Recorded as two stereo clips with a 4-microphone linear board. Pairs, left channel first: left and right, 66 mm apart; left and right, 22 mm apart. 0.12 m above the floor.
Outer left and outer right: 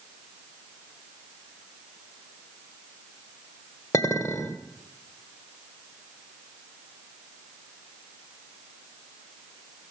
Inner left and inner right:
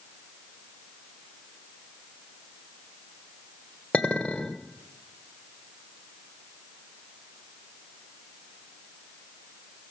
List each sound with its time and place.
3.9 s a clink: 60° left (ahead or behind), 1.4 m